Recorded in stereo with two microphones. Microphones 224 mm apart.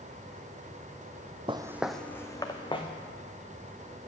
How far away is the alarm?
No alarm in this recording.